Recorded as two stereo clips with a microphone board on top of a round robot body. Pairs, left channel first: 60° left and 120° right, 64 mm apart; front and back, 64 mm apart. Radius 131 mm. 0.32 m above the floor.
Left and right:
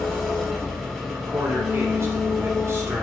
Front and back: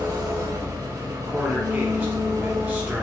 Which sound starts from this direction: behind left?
An engine running, at 0.0 s.